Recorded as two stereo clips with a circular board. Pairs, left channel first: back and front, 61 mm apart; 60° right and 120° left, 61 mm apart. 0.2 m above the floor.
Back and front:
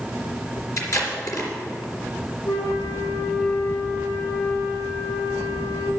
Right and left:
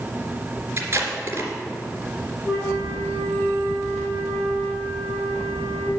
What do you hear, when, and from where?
0.8 s tape being pulled: 170° left, 3 m
2.5 s a flute: 145° right, 3 m